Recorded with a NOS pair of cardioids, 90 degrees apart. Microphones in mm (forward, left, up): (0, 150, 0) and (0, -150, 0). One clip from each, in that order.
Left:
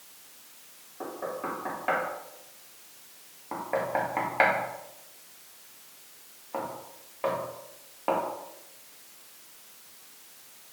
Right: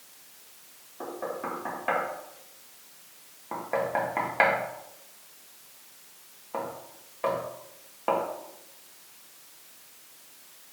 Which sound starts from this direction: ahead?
Knocking, at 1.0 s.